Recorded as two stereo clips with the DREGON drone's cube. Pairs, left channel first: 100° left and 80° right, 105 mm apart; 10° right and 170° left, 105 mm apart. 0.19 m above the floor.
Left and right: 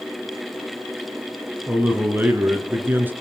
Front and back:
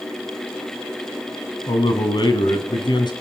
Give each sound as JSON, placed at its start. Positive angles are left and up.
{"t": 1.7, "sound": "a man speaking", "azimuth_deg": -15, "distance_m": 2.0}